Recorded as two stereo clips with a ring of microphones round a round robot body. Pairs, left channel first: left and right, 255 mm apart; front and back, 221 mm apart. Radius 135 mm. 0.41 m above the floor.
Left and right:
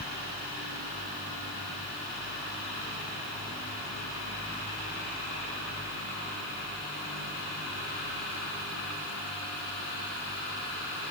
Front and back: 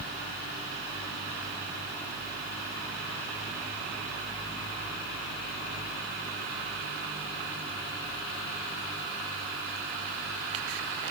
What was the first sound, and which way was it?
Only background noise.